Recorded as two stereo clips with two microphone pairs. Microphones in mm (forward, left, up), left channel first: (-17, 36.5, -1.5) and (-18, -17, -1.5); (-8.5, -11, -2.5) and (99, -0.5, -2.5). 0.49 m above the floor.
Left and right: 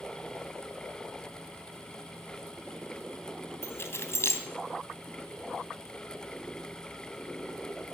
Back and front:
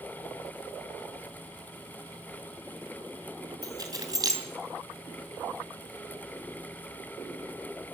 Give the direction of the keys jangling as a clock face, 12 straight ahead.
10 o'clock.